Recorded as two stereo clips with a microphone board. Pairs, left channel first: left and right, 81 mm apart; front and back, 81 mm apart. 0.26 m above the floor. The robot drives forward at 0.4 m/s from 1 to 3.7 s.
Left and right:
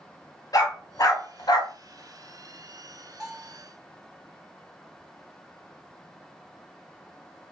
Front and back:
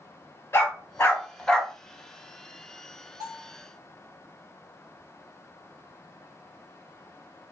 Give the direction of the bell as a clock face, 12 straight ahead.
6 o'clock.